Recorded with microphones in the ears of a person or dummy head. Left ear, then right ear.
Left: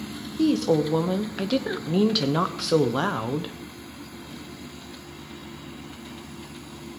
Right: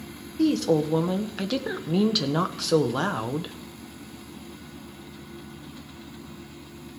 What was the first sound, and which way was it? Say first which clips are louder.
A woman speaking: left 1 dB; centre (ahead or behind).